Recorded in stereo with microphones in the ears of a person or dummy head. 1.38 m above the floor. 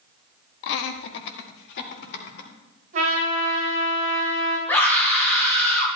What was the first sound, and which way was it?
Laughter, 70° left (ahead or behind).